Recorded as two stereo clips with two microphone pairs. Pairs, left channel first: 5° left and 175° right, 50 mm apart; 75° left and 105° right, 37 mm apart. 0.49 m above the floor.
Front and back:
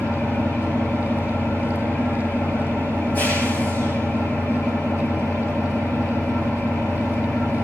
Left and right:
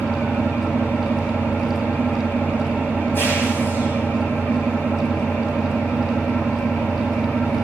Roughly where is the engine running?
Ahead left.